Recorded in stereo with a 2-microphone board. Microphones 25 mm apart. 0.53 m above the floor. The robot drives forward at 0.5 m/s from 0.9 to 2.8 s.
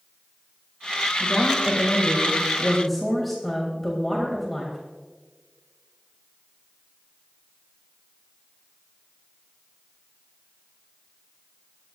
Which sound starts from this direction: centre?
A woman speaking, at 1.2 s.